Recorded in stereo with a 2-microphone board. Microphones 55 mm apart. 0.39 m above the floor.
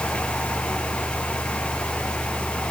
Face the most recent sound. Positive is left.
No sound to turn to.